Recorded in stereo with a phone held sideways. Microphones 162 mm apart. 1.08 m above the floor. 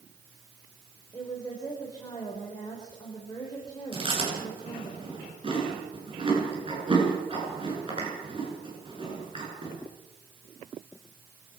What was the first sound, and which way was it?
A woman speaking, 20° left (ahead or behind).